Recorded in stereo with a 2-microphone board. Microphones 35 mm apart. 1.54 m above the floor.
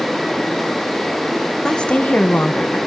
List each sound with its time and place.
1.6 s a woman speaking: 20° left (ahead or behind), 1.2 m; by 2.8 s 65° left (ahead or behind), 1.0 m